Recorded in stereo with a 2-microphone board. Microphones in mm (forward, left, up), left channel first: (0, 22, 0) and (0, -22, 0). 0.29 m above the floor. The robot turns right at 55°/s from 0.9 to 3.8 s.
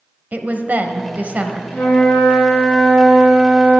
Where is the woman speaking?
85° right, 1.1 m; by 1.6 s 45° right, 1.1 m.